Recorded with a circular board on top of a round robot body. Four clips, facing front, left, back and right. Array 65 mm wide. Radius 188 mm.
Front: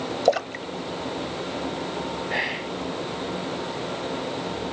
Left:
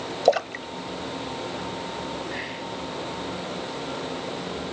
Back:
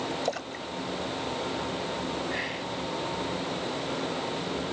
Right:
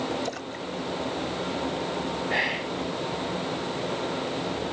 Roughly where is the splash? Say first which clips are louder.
Left 11 dB, front 10 dB; ahead left.